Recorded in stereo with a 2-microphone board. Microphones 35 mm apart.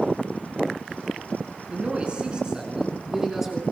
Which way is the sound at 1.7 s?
35° right (ahead or behind).